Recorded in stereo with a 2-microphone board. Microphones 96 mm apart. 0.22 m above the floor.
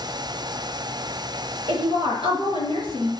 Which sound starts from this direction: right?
A woman speaking, at 1.7 s.